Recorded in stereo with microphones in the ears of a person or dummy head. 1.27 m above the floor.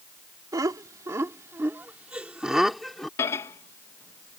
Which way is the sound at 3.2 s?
15° left (ahead or behind).